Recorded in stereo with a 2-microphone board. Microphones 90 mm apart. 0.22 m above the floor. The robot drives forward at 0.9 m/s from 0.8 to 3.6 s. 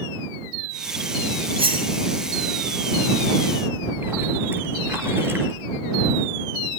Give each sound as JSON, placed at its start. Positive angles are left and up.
{"t": 1.6, "sound": "cutlery clinking", "side_deg": -80, "distance_m": 6.5}
{"t": 3.7, "sound": "a splash", "side_deg": -25, "distance_m": 4.0}